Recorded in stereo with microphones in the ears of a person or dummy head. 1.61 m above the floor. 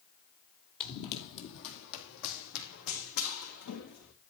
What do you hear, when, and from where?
0.8 s running footsteps: 50° left (ahead or behind), 2.5 m; by 4.1 s 60° left (ahead or behind), 7 m